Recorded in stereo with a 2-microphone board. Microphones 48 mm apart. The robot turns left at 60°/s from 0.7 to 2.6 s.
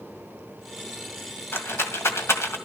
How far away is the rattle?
About 1.9 m.